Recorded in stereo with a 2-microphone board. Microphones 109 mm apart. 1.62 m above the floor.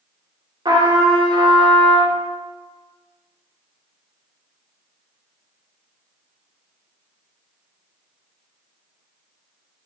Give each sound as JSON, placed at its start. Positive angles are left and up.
{"t": 0.7, "sound": "a trumpet", "side_deg": -40, "distance_m": 1.1}